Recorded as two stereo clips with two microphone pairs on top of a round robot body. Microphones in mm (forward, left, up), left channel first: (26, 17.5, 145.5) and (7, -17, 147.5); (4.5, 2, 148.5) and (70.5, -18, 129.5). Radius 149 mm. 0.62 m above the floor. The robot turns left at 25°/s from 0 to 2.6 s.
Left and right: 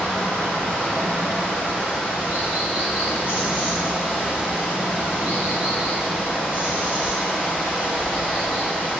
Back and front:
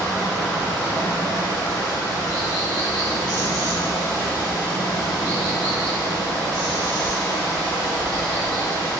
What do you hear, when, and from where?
0.0 s running water: 120° right, 1.5 m; by 9.0 s 175° left, 1.5 m